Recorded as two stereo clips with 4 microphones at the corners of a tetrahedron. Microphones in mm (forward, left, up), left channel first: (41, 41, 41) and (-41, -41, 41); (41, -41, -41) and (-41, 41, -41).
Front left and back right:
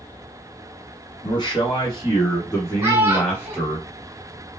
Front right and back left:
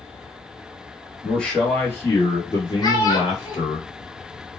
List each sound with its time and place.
1.2 s a man speaking: 40° left, 1.4 m; by 3.8 s 30° right, 1.9 m
2.8 s a child speaking: 75° right, 1.3 m